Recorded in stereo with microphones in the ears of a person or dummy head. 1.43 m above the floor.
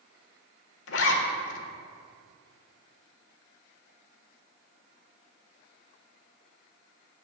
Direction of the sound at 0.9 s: 70° left (ahead or behind).